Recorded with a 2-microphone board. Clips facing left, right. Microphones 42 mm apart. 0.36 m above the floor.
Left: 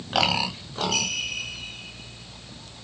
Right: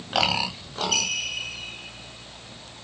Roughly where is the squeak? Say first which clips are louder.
Right 1 dB; right.